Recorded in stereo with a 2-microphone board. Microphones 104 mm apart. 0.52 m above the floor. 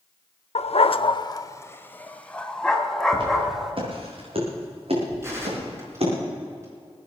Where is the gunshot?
25° right (ahead or behind), 5 m.